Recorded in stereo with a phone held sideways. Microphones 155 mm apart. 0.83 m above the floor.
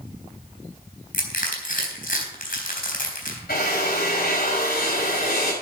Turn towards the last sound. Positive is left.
turn(degrees=80)